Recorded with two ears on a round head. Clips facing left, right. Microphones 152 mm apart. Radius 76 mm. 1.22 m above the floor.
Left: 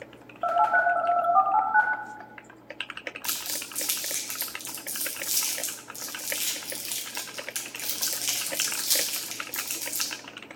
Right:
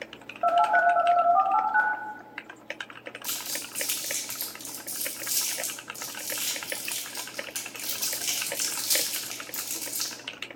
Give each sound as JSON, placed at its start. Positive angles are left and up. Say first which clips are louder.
{"t": 0.4, "sound": "a phone buzzing", "louder": "right 2 dB", "side_deg": -15, "distance_m": 0.7}
{"t": 3.2, "sound": "crumpling", "louder": "even", "side_deg": 5, "distance_m": 0.8}